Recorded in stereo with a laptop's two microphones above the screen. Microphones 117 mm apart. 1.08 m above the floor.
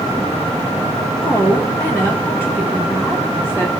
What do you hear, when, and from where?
1.2 s a woman speaking: 20° left (ahead or behind), 1.4 m